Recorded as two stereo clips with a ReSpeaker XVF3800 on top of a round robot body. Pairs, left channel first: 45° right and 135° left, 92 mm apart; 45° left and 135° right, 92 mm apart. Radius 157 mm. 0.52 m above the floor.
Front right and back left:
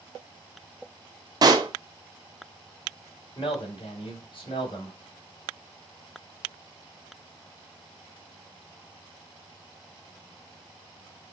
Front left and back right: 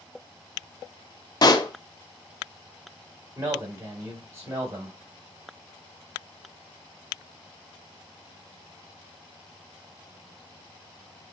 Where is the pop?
90° left, 0.8 m.